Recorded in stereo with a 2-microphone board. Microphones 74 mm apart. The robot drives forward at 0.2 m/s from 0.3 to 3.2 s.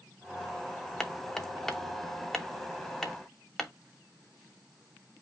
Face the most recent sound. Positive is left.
turn(degrees=5)  # may be behind; listen again after turning